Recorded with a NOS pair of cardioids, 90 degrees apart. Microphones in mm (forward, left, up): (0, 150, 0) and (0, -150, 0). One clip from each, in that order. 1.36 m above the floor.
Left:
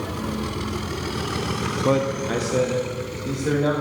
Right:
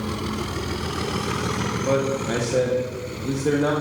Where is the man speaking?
45° left, 1.0 m; by 3.7 s 25° right, 2.5 m.